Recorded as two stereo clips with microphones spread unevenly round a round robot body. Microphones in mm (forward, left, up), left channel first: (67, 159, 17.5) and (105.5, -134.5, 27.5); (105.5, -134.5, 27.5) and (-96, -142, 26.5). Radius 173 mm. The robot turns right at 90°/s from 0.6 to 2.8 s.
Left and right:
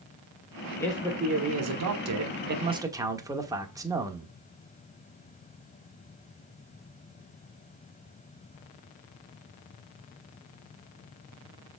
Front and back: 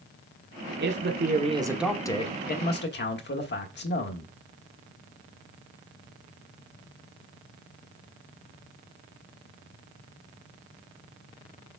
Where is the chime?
I don't hear a chime.